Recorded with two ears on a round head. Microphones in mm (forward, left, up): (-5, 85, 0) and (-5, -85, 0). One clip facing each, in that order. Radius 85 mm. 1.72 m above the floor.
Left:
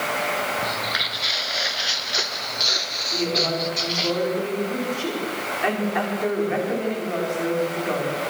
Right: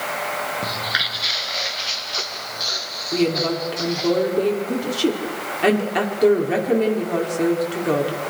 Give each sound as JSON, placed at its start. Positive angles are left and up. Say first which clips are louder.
{"t": 0.6, "sound": "footsteps", "louder": "even", "side_deg": -15, "distance_m": 1.7}
{"t": 3.1, "sound": "a woman speaking", "louder": "right 5 dB", "side_deg": -45, "distance_m": 5.5}